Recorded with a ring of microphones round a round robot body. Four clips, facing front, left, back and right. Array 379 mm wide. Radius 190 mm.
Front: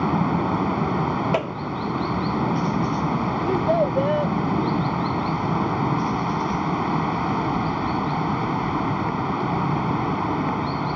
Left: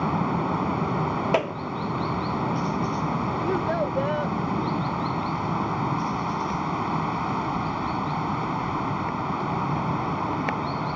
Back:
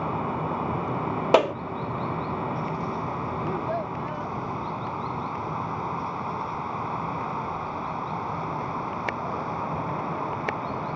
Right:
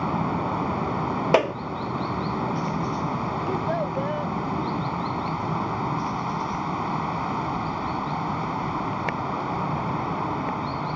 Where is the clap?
145° right.